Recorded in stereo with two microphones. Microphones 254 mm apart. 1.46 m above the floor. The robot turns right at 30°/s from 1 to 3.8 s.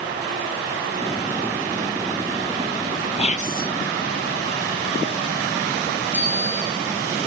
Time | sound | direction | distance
3.2 | whispering | 25° left (ahead or behind) | 1.4 m
6.1 | a bicycle bell | 85° right | 8 m